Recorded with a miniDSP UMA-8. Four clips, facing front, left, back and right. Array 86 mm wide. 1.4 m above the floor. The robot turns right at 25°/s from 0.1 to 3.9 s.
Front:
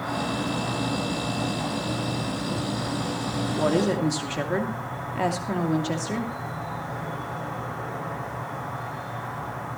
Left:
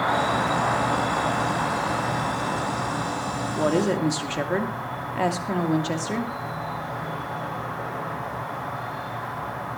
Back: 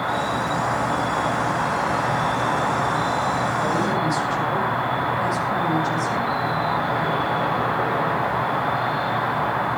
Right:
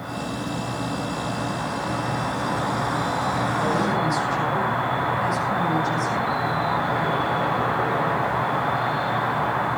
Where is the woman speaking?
50° left, 2.5 m; by 6.3 s 60° left, 2.5 m.